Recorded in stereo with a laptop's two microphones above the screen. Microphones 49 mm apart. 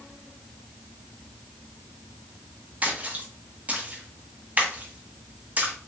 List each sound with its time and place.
2.8 s a splash: 30° right (ahead or behind), 0.9 m